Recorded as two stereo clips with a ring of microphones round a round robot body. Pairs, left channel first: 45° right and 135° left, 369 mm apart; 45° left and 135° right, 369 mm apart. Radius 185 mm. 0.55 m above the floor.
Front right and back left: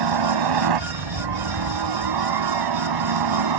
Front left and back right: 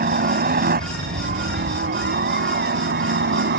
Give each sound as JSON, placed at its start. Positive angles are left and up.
{"t": 0.0, "sound": "a helicopter", "azimuth_deg": 160}